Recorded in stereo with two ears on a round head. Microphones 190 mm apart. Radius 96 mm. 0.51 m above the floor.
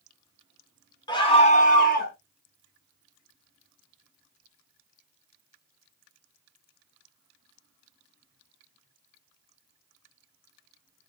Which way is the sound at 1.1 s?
20° left (ahead or behind).